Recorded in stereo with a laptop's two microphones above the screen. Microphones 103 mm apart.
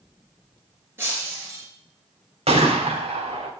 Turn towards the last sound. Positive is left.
turn(degrees=-85)